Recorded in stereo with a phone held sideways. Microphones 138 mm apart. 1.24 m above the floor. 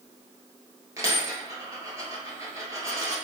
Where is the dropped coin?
25° right (ahead or behind), 1.5 m.